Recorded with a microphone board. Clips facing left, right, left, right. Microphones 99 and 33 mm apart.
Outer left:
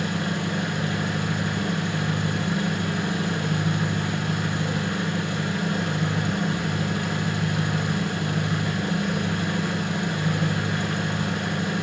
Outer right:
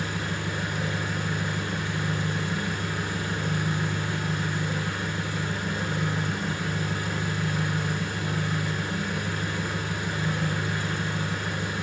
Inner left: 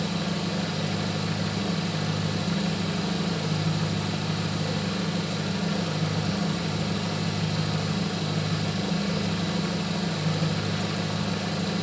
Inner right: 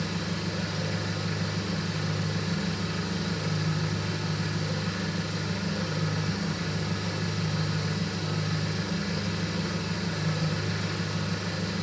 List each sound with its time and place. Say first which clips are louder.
0.0 s an engine running: outer left 4 dB, inner left 3 dB; 70° left (ahead or behind), 1.1 m